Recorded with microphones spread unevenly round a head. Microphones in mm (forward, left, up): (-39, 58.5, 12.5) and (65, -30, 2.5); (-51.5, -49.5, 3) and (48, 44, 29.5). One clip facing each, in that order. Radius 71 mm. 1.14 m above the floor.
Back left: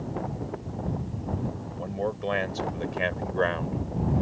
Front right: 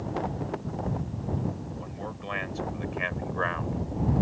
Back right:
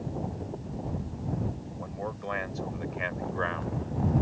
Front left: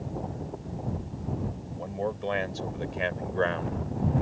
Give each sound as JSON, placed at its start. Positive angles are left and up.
{"t": 1.8, "sound": "a man speaking", "azimuth_deg": 105}